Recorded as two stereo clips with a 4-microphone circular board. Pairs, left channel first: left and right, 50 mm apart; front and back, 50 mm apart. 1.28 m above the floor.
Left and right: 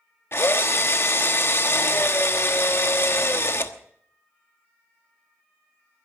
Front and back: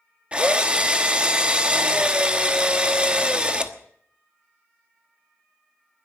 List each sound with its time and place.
0.3 s a drill: 115° left, 1.1 m